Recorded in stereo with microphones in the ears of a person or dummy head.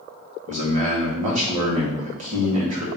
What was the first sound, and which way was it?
A man speaking, 35° right (ahead or behind).